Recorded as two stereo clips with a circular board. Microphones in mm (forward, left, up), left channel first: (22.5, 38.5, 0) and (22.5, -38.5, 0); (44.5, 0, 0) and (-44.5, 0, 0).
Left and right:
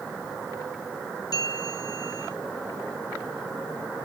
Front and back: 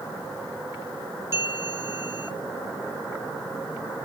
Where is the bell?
120° left, 3 m.